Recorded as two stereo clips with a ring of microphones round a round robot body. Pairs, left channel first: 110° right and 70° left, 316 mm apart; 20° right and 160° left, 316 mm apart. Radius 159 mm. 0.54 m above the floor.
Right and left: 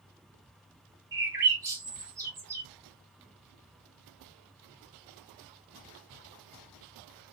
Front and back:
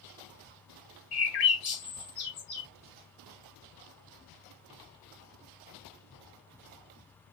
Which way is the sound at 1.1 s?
15° right.